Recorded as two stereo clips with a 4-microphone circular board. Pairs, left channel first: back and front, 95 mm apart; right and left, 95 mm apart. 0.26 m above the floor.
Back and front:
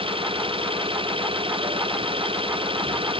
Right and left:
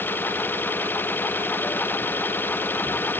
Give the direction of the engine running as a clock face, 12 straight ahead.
1 o'clock.